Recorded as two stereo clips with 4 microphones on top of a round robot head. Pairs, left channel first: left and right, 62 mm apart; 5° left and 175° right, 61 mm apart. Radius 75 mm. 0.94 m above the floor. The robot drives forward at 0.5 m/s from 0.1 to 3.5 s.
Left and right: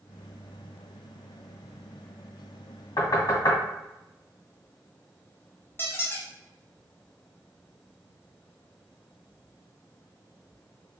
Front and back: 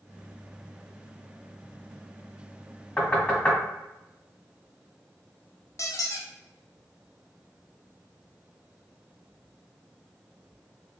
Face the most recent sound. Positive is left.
turn(degrees=35)